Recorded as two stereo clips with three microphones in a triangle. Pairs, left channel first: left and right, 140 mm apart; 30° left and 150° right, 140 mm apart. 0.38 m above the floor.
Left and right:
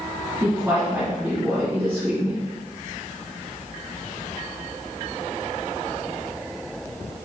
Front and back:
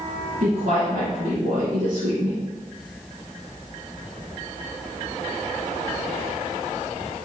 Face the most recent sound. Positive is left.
turn(degrees=-160)